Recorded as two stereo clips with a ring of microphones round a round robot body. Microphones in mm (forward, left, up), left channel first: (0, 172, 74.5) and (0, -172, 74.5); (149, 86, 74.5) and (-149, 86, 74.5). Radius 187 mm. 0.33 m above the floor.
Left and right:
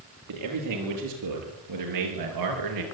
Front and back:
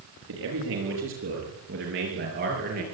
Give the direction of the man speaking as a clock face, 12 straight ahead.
4 o'clock.